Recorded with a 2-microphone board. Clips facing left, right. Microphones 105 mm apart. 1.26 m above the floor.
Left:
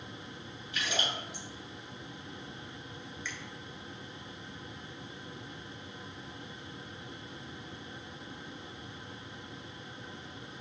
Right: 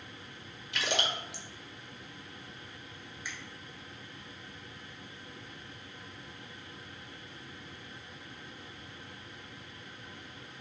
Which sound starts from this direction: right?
A splash, at 0.7 s.